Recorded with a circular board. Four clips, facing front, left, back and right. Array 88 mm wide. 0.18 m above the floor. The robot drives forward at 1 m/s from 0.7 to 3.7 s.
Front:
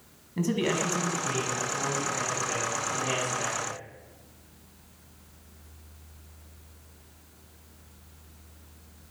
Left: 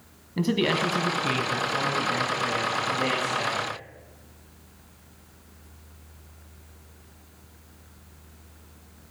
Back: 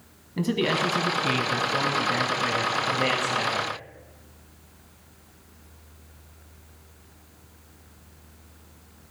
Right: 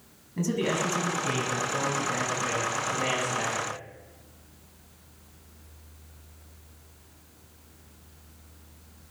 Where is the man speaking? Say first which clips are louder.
Left 3 dB, back 3 dB; 115° left, 1.0 m; by 3.7 s 170° left, 3.5 m.